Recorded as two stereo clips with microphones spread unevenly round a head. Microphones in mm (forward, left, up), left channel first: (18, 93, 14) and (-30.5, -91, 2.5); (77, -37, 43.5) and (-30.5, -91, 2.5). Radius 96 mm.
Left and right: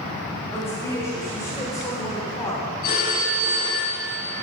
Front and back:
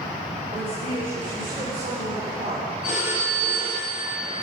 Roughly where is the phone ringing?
Behind left.